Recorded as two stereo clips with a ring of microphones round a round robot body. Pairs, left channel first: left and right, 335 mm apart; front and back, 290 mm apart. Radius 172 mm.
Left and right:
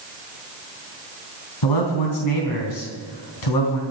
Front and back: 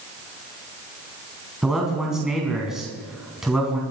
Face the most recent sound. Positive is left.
turn(degrees=90)